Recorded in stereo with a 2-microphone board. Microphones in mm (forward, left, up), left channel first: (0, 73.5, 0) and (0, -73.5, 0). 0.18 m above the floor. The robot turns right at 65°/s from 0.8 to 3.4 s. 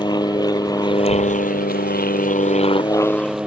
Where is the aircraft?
30° left (ahead or behind); by 3.5 s 5° right (ahead or behind).